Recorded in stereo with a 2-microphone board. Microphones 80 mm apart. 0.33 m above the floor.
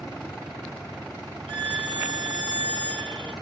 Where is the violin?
75° right (ahead or behind), 2 m.